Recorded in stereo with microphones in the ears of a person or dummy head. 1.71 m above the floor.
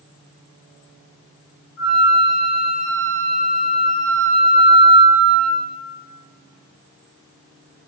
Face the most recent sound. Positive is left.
turn(degrees=25)  # may be behind; listen again after turning